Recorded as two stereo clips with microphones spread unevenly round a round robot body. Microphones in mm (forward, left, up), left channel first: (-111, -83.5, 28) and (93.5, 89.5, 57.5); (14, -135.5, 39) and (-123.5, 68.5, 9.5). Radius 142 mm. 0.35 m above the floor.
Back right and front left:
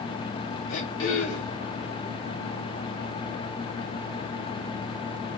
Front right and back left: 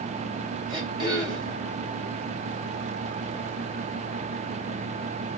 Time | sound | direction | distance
0.7 | throat clearing | 165° right | 3 m